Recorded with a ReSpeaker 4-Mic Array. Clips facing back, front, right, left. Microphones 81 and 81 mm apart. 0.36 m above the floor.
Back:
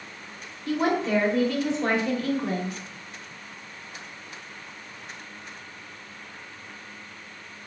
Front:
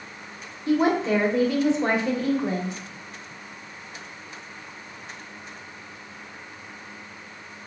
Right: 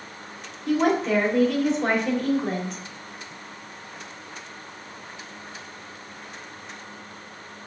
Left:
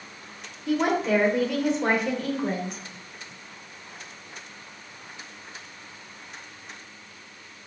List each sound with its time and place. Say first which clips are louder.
0.7 s a woman speaking: front 3 dB, right 2 dB; 10° left, 0.9 m